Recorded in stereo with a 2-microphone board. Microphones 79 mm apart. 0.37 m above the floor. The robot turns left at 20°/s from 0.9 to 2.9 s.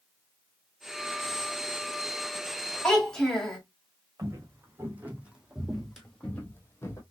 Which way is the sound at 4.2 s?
35° right (ahead or behind).